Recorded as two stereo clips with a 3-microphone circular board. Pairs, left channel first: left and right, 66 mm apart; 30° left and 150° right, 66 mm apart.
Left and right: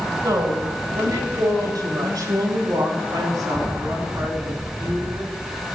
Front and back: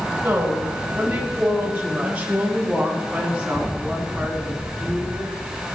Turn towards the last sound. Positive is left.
turn(degrees=-65)